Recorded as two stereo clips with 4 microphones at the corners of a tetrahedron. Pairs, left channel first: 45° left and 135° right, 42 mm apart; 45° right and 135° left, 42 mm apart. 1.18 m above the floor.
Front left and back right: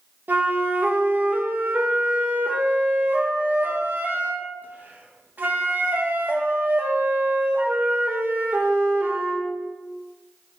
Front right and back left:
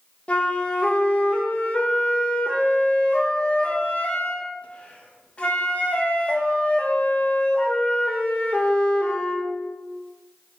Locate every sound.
0.3 s a flute: 100° right, 0.5 m